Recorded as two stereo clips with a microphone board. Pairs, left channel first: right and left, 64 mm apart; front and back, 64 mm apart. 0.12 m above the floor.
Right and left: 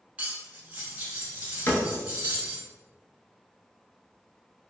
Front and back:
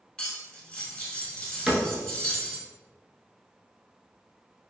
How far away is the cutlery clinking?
About 0.8 m.